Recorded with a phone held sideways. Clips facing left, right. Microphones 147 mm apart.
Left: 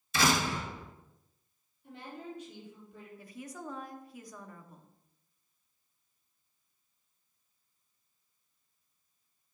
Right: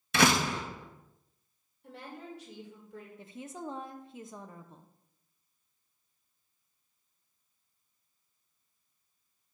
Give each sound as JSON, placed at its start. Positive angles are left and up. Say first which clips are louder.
{"t": 0.1, "sound": "a door slam", "louder": "right 3 dB", "side_deg": -65, "distance_m": 1.1}
{"t": 1.8, "sound": "a woman speaking", "louder": "left 1 dB", "side_deg": -75, "distance_m": 2.0}
{"t": 3.2, "sound": "a woman speaking", "louder": "right 2 dB", "side_deg": -25, "distance_m": 0.6}